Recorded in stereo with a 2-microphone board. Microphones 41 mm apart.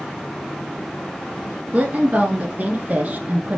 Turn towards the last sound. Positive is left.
turn(degrees=-40)  # may be behind; listen again after turning